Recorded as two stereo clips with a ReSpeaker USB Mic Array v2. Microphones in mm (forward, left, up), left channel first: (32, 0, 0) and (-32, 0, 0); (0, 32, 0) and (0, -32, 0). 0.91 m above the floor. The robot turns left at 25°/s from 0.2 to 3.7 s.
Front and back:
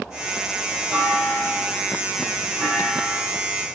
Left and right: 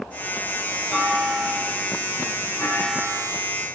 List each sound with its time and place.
0.9 s a clunk: 155° left, 1.2 m; by 3.2 s 95° left, 1.2 m